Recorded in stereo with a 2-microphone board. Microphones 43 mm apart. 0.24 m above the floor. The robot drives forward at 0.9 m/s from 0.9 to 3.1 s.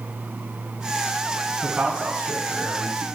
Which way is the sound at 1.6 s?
40° right (ahead or behind).